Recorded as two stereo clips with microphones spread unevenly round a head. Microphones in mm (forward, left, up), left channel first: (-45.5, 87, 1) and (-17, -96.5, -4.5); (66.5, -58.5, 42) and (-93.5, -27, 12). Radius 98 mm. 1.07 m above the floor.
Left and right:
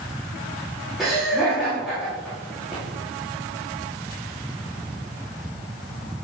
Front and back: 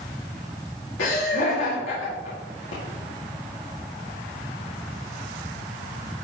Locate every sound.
1.0 s laughter: 10° left, 2.5 m